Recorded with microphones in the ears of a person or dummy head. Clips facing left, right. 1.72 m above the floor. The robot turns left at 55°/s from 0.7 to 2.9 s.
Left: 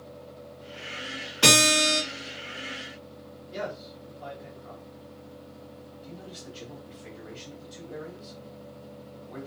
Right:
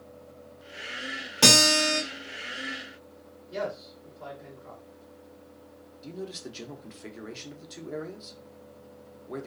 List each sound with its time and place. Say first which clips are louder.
1.4 s a guitar: even; 110° right, 1.4 m; by 2.0 s 145° right, 1.4 m
3.5 s a man speaking: right 2 dB; 25° right (ahead or behind), 1.2 m
6.0 s a man speaking: right 7 dB; 70° right (ahead or behind), 0.7 m